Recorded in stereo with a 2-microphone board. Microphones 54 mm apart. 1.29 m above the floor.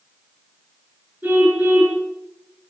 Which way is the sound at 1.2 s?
30° right (ahead or behind).